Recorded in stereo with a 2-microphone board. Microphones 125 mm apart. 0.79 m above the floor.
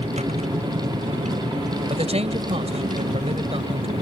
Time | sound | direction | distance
0.0 | a vehicle | 65° right (ahead or behind) | ?
1.9 | a man speaking | 55° right (ahead or behind) | ?